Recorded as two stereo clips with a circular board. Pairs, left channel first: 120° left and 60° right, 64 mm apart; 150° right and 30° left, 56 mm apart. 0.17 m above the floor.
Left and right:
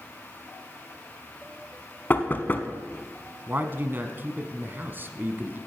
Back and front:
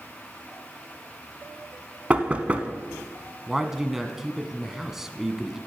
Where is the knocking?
80° left, 0.9 m.